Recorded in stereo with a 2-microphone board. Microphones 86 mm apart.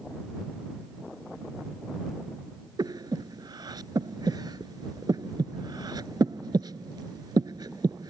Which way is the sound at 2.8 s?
55° right (ahead or behind).